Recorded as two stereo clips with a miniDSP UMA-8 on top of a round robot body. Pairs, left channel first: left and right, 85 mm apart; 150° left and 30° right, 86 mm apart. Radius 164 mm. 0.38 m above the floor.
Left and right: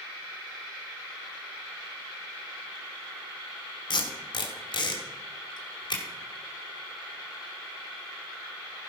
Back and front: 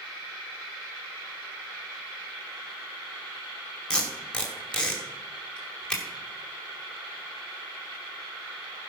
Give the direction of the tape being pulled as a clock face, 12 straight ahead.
10 o'clock.